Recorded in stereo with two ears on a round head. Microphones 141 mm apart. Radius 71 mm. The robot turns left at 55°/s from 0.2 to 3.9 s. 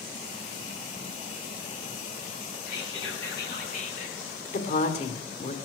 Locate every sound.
2.7 s whispering: 110° left, 6 m; by 4.4 s 40° left, 6 m
4.5 s a woman speaking: 50° left (ahead or behind), 1.9 m